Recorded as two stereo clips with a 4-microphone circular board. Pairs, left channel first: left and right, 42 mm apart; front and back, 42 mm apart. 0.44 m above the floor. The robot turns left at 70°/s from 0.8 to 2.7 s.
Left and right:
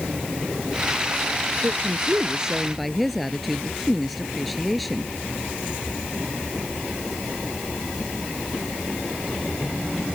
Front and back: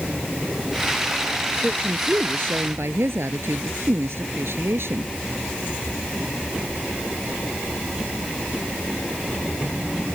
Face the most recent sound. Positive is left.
turn(degrees=180)